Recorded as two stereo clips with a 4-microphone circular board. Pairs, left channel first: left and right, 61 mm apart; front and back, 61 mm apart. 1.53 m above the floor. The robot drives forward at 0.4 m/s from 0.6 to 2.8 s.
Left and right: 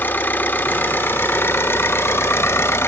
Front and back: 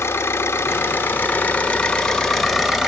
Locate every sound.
0.0 s an engine running: 40° left, 1.3 m; by 2.9 s 95° left, 1.0 m